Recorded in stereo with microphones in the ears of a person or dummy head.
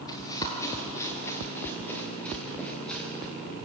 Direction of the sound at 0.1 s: 20° left (ahead or behind).